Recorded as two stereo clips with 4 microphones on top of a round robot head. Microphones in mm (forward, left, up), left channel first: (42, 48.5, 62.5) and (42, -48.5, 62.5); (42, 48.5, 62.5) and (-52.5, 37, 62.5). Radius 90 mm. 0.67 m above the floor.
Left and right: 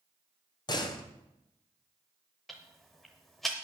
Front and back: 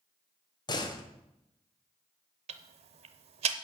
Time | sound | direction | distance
0.7 | a door slam | 50° left | 1.6 m
2.5 | ticking | straight behind | 0.7 m